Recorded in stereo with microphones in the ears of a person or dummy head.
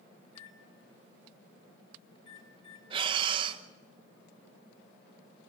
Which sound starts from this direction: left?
A microwave, at 0.2 s.